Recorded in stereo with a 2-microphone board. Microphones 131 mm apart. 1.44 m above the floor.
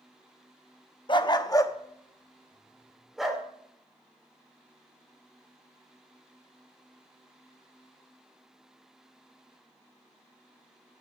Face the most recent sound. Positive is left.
turn(degrees=-5)  # may be behind; listen again after turning